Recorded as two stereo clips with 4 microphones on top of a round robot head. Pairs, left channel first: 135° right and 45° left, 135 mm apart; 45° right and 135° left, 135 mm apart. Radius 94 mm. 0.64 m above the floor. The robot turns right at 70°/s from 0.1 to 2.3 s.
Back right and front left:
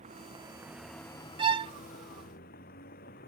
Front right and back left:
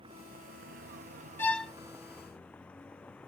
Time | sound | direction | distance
0.0 | a vehicle | 80° left | ?
1.4 | a violin | 20° left | ?